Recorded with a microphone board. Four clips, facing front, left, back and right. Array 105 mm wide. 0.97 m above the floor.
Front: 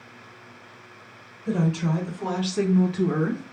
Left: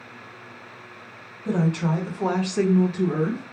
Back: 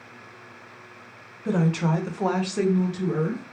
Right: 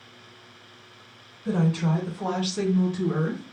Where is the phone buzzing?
No phone buzzing in this recording.